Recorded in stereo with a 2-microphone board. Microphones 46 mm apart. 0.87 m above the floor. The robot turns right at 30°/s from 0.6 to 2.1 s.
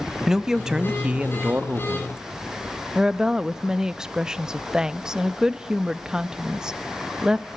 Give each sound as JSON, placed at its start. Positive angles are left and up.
{"t": 0.3, "sound": "a man speaking", "azimuth_deg": -165, "distance_m": 0.8}
{"t": 3.0, "sound": "a woman speaking", "side_deg": -15, "distance_m": 0.7}